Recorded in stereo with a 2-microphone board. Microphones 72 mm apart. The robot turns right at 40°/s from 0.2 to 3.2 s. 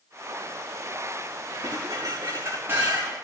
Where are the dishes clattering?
75° right, 5.5 m; by 3.1 s 15° right, 5.5 m.